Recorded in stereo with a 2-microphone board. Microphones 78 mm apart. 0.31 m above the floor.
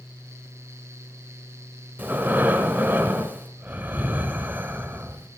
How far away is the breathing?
About 1.1 m.